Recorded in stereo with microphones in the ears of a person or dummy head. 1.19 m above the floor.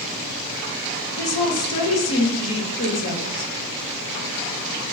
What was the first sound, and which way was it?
A woman speaking, 75° left (ahead or behind).